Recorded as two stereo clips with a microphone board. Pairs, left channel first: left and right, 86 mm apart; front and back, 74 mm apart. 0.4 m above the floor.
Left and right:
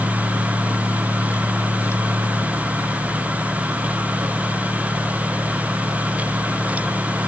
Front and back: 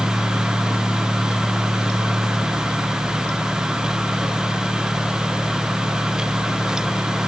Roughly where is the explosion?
I don't hear an explosion.